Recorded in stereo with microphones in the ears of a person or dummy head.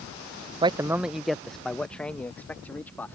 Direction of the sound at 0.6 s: 30° right (ahead or behind).